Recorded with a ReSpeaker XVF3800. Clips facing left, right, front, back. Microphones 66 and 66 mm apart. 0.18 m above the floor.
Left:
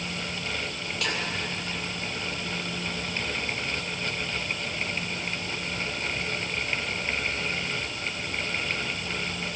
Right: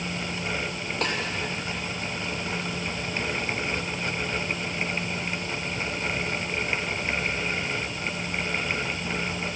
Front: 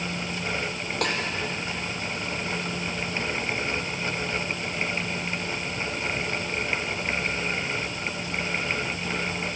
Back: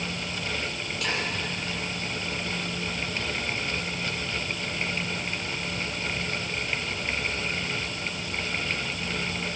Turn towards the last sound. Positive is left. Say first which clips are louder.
# right 2 dB, front 3 dB
turn(degrees=-35)